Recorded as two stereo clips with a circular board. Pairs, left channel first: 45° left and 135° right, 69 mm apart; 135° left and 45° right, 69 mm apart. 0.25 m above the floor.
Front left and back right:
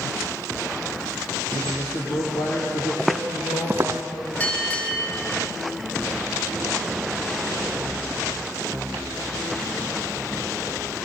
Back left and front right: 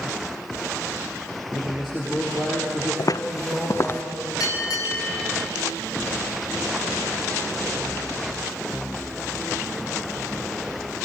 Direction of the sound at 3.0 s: 130° left.